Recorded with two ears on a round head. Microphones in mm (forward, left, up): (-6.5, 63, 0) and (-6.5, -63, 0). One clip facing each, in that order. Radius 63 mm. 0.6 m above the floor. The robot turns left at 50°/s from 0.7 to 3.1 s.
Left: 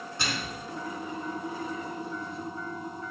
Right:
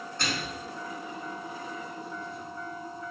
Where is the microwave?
10° left (ahead or behind), 1.3 m.